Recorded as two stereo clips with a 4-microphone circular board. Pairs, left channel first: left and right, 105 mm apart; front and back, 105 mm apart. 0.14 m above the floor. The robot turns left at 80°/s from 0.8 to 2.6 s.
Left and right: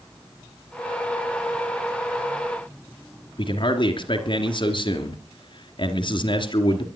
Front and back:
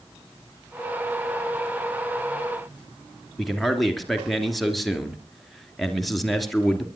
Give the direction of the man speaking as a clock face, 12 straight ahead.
9 o'clock.